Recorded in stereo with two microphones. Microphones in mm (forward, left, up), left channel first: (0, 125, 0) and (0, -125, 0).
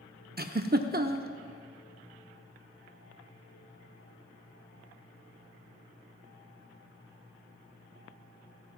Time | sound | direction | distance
0.4 | a giggle | 40° right (ahead or behind) | 0.6 m